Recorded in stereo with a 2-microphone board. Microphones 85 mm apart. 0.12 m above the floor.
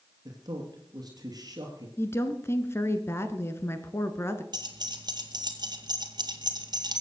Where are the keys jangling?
55° right (ahead or behind), 1.8 m.